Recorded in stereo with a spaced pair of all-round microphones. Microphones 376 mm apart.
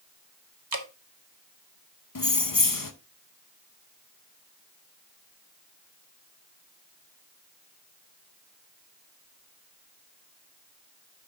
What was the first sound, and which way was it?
Dripping, 70° right (ahead or behind).